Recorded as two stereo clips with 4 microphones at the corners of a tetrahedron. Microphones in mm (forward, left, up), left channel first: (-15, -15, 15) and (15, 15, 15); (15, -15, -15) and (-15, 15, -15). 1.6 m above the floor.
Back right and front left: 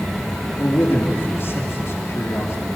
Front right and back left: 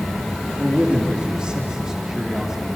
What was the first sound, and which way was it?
A man speaking, 170° right.